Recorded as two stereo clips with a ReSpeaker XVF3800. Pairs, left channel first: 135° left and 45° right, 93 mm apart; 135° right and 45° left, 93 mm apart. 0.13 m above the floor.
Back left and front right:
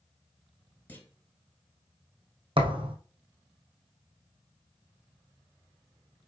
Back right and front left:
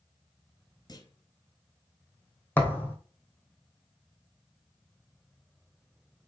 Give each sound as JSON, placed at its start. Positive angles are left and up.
{"t": 0.9, "sound": "a clunk", "azimuth_deg": -160, "distance_m": 1.5}
{"t": 2.6, "sound": "a thud", "azimuth_deg": -65, "distance_m": 1.5}